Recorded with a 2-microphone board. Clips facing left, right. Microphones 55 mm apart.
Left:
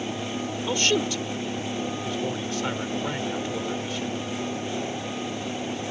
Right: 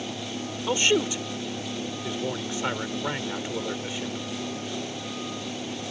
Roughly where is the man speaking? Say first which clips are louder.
Right 2 dB; centre.